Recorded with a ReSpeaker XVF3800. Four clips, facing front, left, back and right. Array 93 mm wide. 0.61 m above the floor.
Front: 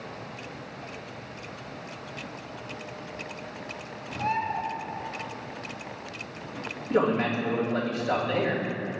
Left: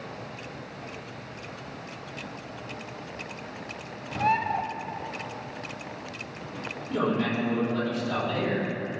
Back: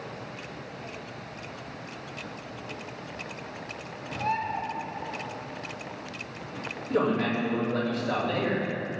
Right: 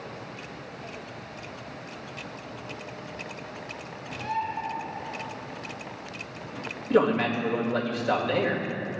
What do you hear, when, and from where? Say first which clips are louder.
4.2 s a bird: left 6 dB, front 1 dB; 85° left, 0.6 m
6.9 s a man speaking: right 4 dB, front 1 dB; 85° right, 2.5 m